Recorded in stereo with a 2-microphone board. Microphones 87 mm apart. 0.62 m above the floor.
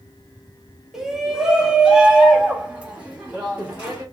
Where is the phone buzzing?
I don't hear a phone buzzing.